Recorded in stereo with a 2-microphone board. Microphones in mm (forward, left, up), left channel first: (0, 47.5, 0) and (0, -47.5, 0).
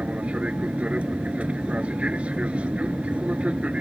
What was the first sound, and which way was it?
An aircraft, 15° right (ahead or behind).